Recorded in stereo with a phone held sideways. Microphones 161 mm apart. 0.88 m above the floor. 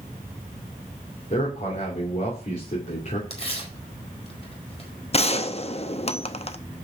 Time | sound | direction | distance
1.3 | a man speaking | 55° left (ahead or behind) | 3 m
3.3 | tearing paper | 40° left (ahead or behind) | 4 m
5.1 | a gunshot | 40° left (ahead or behind) | 0.7 m